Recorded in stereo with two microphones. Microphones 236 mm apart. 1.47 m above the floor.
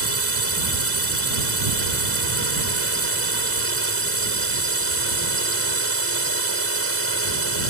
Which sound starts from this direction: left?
A drone, at 0.0 s.